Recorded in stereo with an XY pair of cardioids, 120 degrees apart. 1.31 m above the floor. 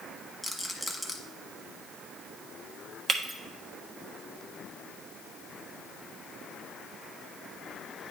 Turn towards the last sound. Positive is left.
turn(degrees=-35)